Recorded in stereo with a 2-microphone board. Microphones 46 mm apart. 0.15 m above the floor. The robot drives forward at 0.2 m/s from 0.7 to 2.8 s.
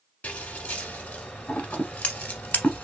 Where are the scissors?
35° left (ahead or behind), 0.9 m.